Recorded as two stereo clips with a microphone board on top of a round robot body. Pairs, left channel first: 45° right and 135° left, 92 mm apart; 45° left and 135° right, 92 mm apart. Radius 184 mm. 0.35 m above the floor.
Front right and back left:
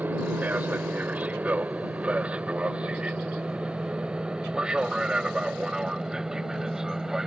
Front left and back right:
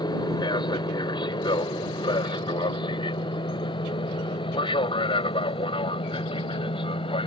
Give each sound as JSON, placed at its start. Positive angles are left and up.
{"t": 0.0, "sound": "an aircraft", "azimuth_deg": 70}